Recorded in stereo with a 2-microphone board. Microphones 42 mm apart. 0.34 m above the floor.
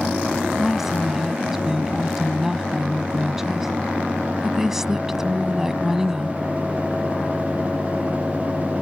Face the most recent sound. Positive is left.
turn(degrees=-10)  # may be behind; listen again after turning